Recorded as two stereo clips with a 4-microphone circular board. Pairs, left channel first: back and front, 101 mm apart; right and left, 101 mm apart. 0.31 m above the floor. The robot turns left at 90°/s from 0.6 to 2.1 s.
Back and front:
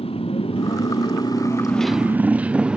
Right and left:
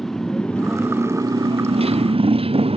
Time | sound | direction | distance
0.0 | a motorcycle | 175° right | ?